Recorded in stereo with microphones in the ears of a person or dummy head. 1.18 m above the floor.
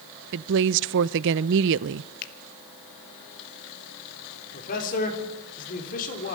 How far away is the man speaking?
About 4 m.